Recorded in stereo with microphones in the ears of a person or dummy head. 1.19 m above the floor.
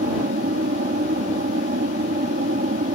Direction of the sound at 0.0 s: 45° right (ahead or behind).